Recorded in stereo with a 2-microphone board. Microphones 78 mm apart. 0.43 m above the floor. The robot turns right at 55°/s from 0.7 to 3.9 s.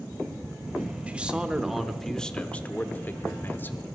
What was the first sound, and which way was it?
A man speaking, 15° right (ahead or behind).